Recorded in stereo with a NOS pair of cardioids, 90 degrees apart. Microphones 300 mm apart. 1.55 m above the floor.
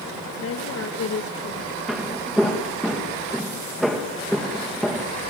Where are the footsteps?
Straight ahead, 5.5 m.